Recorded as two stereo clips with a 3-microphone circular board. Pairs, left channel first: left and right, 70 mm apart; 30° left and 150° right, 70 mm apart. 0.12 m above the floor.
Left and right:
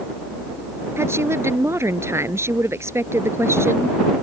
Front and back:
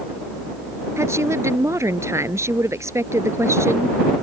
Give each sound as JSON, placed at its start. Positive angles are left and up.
{"t": 1.0, "sound": "a woman speaking", "azimuth_deg": -120}